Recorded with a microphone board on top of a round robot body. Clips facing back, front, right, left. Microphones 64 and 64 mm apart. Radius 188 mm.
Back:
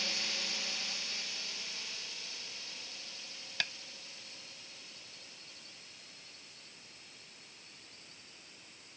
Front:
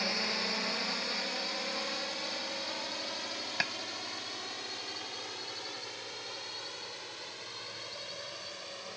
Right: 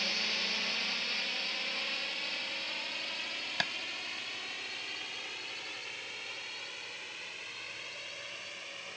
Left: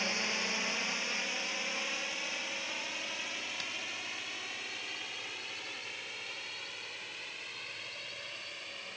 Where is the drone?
25° left; by 9.0 s straight ahead.